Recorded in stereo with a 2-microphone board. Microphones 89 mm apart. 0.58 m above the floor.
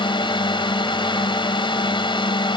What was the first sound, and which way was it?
A drone, 65° left (ahead or behind).